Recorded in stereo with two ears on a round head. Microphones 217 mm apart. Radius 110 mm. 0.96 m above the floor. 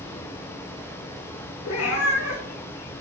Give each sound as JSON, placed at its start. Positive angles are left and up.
{"t": 1.6, "sound": "a cat meowing", "side_deg": 55, "distance_m": 1.5}